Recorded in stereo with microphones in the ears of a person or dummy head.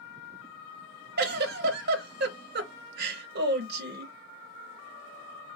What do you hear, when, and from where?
1.2 s a giggle: 55° right (ahead or behind), 0.7 m